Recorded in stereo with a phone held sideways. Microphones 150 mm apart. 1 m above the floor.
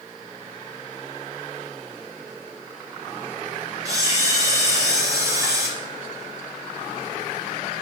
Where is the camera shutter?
20° right (ahead or behind), 0.6 m.